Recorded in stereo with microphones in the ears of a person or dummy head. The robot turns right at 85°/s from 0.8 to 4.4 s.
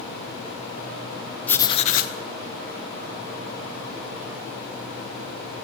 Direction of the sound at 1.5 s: 10° left.